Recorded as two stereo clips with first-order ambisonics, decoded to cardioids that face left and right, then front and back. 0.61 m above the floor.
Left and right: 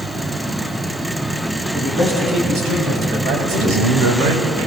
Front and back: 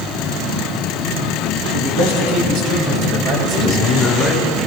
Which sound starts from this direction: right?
A man speaking, at 3.4 s.